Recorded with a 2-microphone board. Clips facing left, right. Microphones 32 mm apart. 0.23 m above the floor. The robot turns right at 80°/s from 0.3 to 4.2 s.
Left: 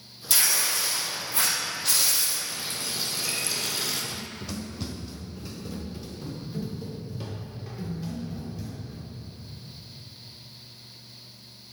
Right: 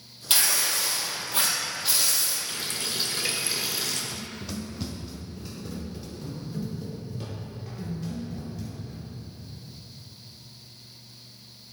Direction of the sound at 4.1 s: Centre (ahead or behind).